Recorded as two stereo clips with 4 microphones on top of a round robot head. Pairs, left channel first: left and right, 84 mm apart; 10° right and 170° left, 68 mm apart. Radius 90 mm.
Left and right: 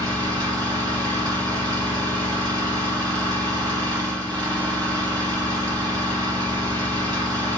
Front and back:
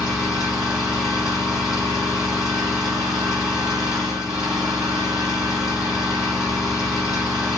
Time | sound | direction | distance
0.0 | an engine running | 110° right | 1.6 m